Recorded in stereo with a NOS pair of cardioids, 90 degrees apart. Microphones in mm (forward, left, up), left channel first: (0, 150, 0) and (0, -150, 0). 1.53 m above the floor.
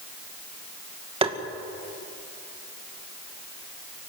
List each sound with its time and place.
1.2 s tapping: 20° right, 2 m